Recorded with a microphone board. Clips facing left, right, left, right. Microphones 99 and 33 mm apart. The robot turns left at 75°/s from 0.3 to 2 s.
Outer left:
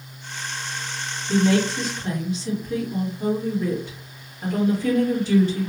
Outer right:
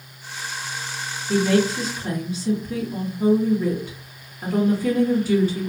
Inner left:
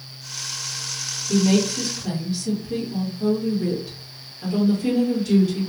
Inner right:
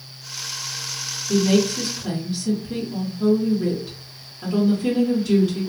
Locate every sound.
1.3 s a woman speaking: 40° left, 1.6 m; by 5.7 s 10° right, 1.6 m